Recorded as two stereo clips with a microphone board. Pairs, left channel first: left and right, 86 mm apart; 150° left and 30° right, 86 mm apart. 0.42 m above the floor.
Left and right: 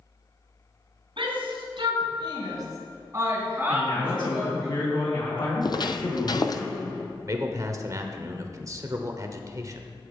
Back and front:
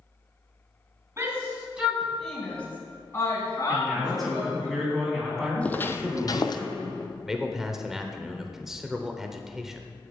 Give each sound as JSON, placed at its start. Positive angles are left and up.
{"t": 1.2, "sound": "a shout", "azimuth_deg": -90, "distance_m": 3.0}
{"t": 3.7, "sound": "a man speaking", "azimuth_deg": 60, "distance_m": 3.5}
{"t": 5.6, "sound": "footsteps", "azimuth_deg": 80, "distance_m": 0.6}
{"t": 7.3, "sound": "a man speaking", "azimuth_deg": -110, "distance_m": 1.0}